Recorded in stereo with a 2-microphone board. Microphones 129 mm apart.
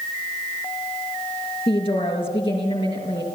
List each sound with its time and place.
1.7 s a woman speaking: 45° left (ahead or behind), 4.5 m